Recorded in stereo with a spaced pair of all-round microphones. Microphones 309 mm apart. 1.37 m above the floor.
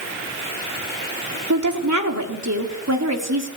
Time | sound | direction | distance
1.5 | a woman speaking | 70° right (ahead or behind) | 4 m